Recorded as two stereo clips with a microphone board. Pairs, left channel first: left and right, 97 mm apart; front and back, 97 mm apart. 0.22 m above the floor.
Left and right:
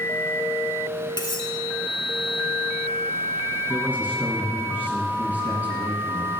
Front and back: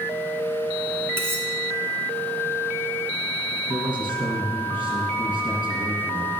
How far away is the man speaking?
About 2 m.